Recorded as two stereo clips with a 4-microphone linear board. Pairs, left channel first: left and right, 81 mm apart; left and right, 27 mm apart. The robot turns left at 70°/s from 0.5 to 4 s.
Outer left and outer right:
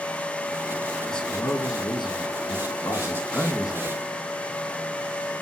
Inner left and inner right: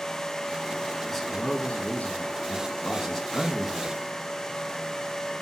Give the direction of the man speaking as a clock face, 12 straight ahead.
6 o'clock.